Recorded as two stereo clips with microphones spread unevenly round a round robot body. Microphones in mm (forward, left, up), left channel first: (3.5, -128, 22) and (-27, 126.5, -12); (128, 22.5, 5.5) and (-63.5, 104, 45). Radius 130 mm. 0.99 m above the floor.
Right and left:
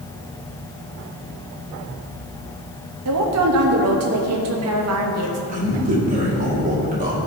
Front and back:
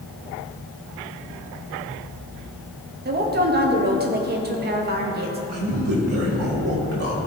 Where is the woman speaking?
110° left, 1.2 m.